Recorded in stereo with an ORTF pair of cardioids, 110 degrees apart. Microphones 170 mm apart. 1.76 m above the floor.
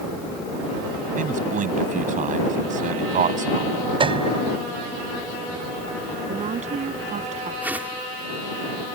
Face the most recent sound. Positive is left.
turn(degrees=-10)